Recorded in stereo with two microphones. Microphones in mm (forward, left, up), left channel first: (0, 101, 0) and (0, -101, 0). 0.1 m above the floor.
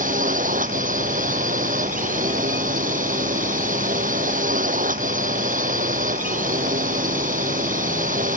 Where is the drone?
40° right (ahead or behind).